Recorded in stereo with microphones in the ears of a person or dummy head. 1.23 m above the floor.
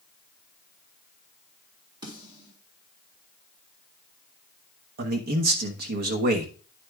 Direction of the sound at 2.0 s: 25° right (ahead or behind).